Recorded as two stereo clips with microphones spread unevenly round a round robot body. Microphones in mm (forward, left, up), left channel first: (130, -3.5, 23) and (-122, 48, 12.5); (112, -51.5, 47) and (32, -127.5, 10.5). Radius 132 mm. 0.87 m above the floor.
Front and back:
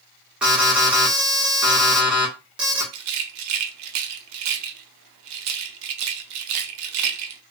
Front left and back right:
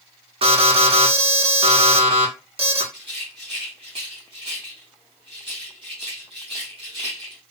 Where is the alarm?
105° right, 1.8 m.